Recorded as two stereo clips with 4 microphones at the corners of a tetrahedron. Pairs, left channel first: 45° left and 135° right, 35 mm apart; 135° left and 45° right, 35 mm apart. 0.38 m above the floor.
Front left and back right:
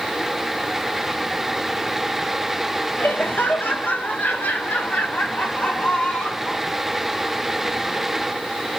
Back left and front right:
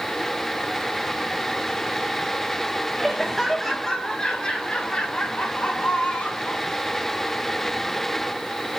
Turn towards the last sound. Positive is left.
turn(degrees=90)